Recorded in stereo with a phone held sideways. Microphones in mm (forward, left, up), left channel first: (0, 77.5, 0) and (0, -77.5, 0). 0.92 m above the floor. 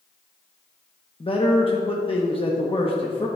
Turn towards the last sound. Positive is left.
turn(degrees=35)  # may be behind; listen again after turning